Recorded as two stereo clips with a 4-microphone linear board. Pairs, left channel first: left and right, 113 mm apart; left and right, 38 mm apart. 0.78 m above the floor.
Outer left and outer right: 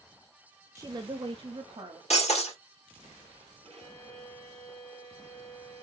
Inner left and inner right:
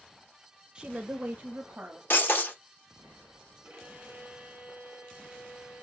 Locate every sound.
0.8 s a woman speaking: 25° right (ahead or behind), 0.7 m; by 2.0 s 60° right (ahead or behind), 1.5 m
2.1 s breaking glass: 75° left (ahead or behind), 2.5 m
3.6 s a violin: 60° right (ahead or behind), 2.5 m